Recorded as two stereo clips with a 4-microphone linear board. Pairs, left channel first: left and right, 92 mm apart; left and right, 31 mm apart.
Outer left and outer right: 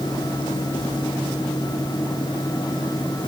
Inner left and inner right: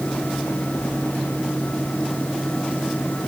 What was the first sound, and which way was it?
Only background noise.